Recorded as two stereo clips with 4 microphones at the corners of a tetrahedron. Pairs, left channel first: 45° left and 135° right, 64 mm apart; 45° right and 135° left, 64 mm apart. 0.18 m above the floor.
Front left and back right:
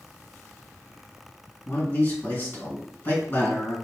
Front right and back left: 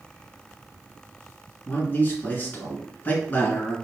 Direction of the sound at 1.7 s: 5° right.